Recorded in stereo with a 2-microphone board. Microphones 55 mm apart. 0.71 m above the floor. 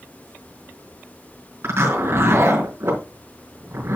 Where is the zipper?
50° right (ahead or behind), 4.5 m.